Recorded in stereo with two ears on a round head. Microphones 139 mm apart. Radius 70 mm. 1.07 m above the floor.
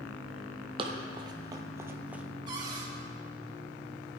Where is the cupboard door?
30° right (ahead or behind), 2.5 m.